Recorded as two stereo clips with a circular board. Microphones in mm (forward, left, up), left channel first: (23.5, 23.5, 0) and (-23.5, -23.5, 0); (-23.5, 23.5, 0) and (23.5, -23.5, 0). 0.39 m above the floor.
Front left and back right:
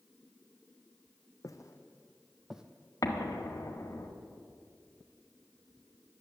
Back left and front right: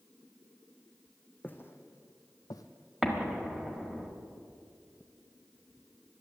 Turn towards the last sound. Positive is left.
turn(degrees=40)